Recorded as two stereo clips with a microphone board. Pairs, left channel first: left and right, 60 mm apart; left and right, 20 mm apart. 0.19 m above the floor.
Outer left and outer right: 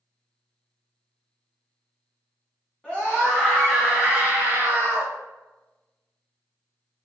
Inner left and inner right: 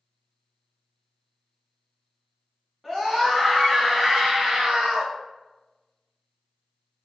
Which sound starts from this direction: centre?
A scream, at 2.8 s.